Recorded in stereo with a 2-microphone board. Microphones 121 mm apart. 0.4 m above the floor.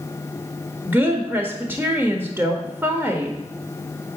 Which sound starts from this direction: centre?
A woman speaking, at 0.8 s.